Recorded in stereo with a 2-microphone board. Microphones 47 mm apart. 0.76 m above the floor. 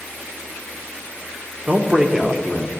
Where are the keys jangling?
No keys jangling in this recording.